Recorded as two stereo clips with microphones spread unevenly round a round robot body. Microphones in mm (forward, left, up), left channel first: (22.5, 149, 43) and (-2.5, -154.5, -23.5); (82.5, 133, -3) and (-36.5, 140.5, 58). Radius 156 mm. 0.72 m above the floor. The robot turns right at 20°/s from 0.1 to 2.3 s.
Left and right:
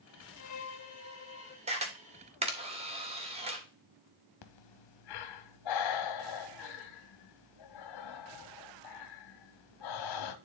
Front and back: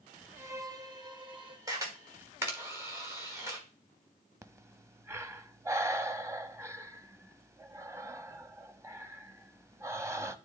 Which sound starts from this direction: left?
Breathing, at 4.4 s.